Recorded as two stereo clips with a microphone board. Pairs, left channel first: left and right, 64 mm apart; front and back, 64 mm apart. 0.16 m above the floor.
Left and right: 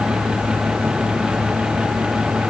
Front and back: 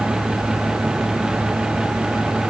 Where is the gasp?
No gasp in this recording.